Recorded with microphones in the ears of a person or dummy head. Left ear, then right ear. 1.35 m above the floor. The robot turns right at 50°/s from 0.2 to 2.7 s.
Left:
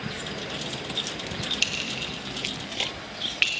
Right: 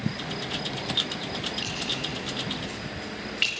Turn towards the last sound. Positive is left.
turn(degrees=35)  # may be behind; listen again after turning